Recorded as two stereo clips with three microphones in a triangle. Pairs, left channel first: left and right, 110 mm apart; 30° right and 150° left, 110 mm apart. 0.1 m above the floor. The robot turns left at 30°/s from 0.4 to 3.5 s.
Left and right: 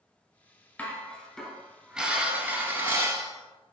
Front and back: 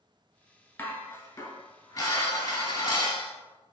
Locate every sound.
0.8 s dishes clattering: 25° left, 0.8 m; by 3.3 s 55° right, 0.8 m